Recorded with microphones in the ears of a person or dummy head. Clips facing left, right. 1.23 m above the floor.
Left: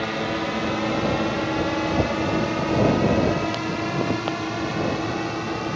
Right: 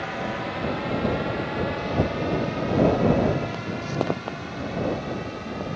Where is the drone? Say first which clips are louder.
Left 4 dB; 45° left (ahead or behind); by 5.8 s 65° left (ahead or behind).